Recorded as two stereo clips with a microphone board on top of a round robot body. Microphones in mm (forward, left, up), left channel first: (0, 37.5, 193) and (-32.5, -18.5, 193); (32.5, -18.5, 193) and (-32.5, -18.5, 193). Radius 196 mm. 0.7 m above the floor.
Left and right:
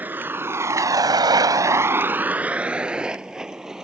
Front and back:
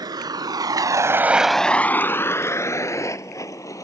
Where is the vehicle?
175° left; by 3.9 s 40° right.